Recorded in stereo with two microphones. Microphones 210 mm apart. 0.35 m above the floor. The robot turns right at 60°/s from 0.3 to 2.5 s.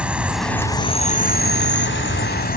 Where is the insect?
5° right; by 2.6 s 125° left.